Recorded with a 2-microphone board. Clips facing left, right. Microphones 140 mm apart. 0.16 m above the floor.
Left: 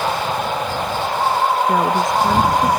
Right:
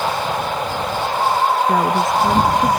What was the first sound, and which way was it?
A woman speaking, centre (ahead or behind).